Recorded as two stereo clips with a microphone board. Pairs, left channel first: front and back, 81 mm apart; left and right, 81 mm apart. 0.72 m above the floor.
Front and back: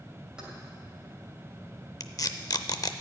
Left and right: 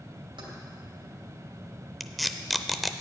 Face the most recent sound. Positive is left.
turn(degrees=0)